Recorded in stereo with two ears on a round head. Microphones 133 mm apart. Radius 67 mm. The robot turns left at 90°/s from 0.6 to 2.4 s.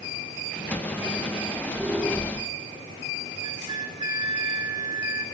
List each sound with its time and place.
1.4 s a squeak: 125° right, 6 m; by 2.5 s 145° left, 6 m
3.4 s a flute: 30° right (ahead or behind), 4.5 m